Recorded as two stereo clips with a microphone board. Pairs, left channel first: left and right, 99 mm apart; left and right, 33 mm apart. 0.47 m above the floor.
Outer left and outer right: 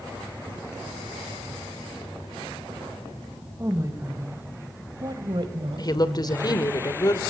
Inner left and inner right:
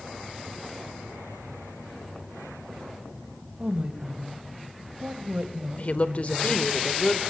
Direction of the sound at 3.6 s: 25° right (ahead or behind).